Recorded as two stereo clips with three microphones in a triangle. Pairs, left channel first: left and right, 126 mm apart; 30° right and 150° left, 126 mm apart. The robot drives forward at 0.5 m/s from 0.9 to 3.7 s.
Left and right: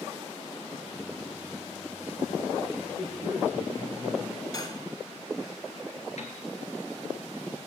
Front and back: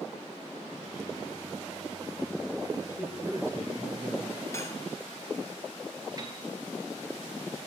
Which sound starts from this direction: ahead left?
Cutlery clinking, at 4.5 s.